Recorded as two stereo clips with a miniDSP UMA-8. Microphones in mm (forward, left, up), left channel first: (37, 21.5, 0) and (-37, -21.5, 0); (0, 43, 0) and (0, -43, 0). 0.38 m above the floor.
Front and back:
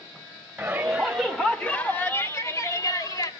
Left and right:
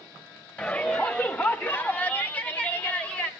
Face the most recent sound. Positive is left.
turn(degrees=20)